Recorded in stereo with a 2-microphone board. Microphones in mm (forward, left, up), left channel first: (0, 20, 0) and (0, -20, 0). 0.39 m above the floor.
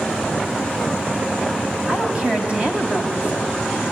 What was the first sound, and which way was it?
A woman speaking, 25° right (ahead or behind).